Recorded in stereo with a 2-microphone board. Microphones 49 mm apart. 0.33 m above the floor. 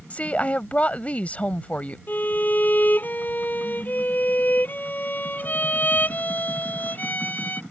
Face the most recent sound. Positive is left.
turn(degrees=35)  # may be behind; listen again after turning